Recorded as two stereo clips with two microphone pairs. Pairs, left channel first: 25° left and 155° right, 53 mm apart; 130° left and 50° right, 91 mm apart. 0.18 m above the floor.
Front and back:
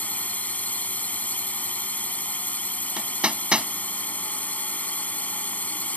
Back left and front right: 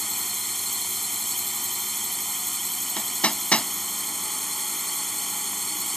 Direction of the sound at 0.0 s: 40° left.